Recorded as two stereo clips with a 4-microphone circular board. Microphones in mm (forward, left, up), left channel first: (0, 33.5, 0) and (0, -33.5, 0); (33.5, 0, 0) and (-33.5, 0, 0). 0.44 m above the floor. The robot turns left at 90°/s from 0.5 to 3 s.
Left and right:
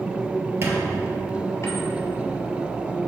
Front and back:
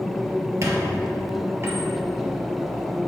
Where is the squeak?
140° right, 1.4 m; by 1.9 s 105° left, 1.4 m.